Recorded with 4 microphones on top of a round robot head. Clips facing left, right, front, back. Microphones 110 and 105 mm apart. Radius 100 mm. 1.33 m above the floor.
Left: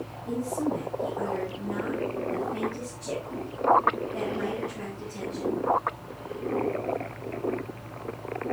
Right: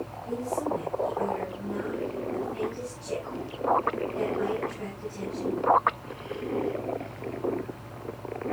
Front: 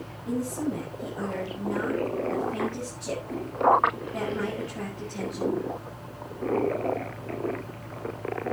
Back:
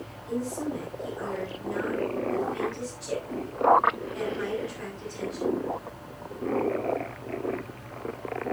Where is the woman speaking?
40° left, 7.5 m.